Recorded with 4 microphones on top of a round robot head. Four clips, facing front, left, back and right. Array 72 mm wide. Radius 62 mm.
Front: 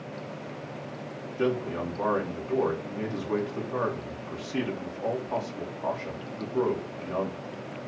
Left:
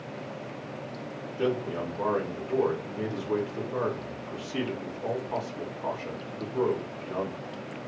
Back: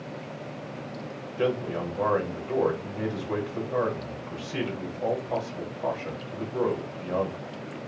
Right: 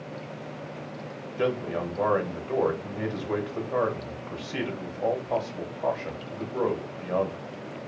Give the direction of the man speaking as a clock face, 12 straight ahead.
4 o'clock.